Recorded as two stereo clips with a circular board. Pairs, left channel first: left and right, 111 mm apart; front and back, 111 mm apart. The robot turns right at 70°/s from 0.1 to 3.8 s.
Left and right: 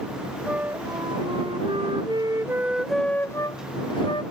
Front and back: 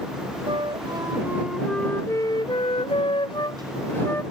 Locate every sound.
0.5 s a flute: 170° right; by 4.2 s 65° left